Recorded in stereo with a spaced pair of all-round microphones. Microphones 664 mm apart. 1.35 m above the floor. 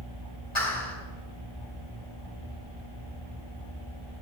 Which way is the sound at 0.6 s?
45° left (ahead or behind).